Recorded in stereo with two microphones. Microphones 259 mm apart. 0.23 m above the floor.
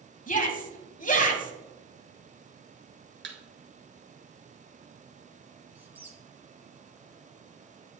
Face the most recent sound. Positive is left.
turn(degrees=-5)  # may be behind; listen again after turning